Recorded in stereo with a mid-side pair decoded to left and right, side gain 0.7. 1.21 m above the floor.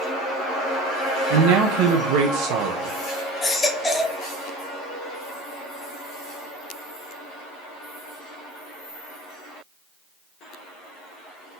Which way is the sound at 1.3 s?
70° right.